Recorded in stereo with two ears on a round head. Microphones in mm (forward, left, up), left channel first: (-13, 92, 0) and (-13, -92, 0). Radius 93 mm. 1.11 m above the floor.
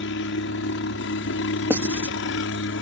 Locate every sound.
0.0 s a helicopter: 65° left (ahead or behind)
1.7 s writing: 10° right (ahead or behind)